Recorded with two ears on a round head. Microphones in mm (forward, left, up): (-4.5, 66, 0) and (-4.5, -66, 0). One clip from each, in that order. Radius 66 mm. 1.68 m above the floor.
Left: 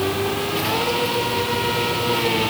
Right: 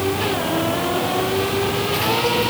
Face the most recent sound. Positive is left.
No sound to turn to.